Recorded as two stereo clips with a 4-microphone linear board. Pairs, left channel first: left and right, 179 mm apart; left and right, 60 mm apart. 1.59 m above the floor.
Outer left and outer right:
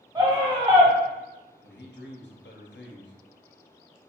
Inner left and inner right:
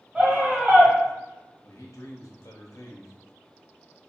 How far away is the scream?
About 1.3 m.